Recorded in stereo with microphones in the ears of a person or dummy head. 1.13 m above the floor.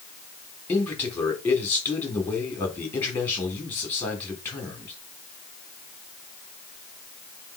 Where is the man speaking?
10° left (ahead or behind), 3.5 m.